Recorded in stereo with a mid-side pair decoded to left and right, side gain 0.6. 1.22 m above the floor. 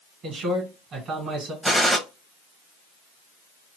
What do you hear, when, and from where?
0.2 s a man speaking: 45° right, 1.5 m
1.6 s a gunshot: 5° right, 1.0 m